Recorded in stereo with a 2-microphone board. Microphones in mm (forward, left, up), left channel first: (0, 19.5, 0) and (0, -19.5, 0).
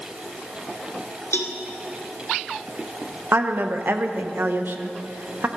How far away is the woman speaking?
About 0.8 m.